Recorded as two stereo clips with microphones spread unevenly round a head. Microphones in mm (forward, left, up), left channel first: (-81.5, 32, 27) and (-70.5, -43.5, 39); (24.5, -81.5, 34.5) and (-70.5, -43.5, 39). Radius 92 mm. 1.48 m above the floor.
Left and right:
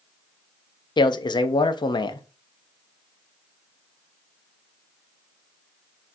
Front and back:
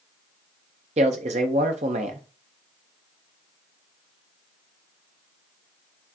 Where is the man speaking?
125° left, 0.6 m.